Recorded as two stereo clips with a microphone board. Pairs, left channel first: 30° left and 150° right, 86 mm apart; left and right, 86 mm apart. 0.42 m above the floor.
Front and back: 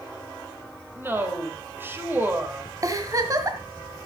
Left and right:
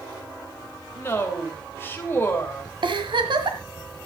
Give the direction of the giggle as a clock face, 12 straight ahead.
3 o'clock.